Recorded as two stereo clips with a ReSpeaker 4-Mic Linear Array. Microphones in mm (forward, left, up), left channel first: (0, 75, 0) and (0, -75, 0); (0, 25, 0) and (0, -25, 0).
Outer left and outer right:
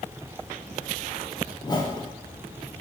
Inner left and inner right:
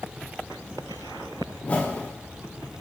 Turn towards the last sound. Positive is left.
turn(degrees=30)  # may be behind; listen again after turning